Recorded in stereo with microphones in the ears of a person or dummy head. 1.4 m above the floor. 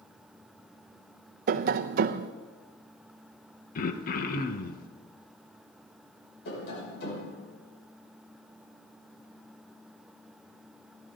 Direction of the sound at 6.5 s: 60° left (ahead or behind).